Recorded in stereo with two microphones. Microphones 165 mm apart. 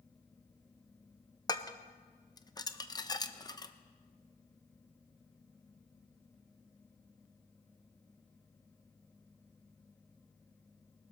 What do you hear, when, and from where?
1.5 s dishes clattering: 25° left (ahead or behind), 0.6 m